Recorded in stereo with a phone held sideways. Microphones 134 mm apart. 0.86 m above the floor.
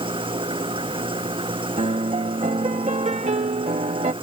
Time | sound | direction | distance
0.0 | an engine running | 40° right (ahead or behind) | ?
1.8 | a piano | 55° right (ahead or behind) | ?